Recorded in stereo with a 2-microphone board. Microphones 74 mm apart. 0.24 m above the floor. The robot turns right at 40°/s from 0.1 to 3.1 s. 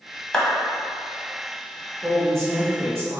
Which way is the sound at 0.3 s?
10° left (ahead or behind).